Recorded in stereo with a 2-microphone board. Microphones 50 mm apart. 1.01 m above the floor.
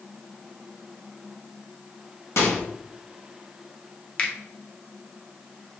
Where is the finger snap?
20° left (ahead or behind), 0.7 m.